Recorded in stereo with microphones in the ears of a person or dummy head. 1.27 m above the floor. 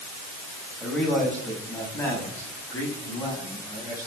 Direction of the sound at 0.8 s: 5° left (ahead or behind).